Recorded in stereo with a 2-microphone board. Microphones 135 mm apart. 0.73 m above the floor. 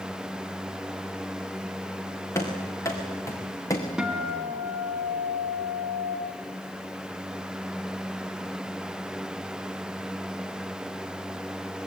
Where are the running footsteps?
20° left (ahead or behind), 4.5 m; by 3.9 s 25° left (ahead or behind), 3.5 m.